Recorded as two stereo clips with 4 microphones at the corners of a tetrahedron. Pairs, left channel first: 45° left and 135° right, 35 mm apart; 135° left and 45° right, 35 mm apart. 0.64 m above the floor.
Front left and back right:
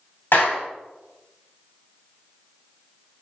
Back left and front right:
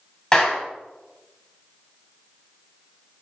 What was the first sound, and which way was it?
A clap, 65° left.